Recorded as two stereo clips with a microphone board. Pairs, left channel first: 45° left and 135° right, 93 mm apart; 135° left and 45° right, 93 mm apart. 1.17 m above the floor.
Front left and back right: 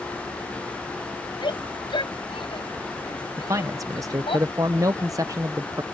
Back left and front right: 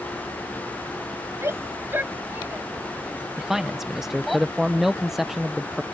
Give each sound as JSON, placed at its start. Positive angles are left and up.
{"t": 1.4, "sound": "a shout", "azimuth_deg": 15}
{"t": 3.4, "sound": "a man speaking", "azimuth_deg": -130}